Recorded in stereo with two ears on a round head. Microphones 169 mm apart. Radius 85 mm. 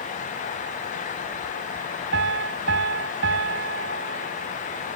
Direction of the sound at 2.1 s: 70° right (ahead or behind).